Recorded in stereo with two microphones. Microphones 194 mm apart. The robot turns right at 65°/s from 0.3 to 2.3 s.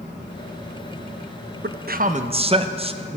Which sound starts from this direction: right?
A man speaking, at 1.6 s.